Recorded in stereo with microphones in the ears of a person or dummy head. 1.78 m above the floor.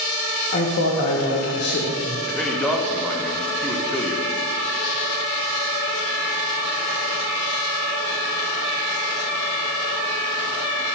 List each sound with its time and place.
0.5 s a man speaking: 50° left (ahead or behind), 1.0 m
2.3 s a man speaking: 5° left (ahead or behind), 0.9 m